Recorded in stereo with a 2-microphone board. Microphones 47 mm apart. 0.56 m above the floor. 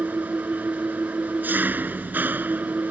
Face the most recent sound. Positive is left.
turn(degrees=-40)  # may be behind; listen again after turning